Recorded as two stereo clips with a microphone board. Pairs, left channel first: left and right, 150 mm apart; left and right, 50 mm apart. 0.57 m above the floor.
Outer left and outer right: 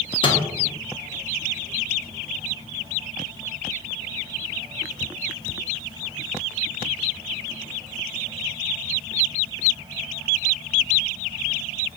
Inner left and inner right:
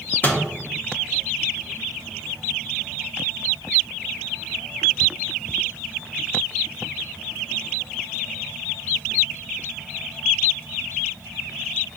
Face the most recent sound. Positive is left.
turn(degrees=35)  # may be behind; listen again after turning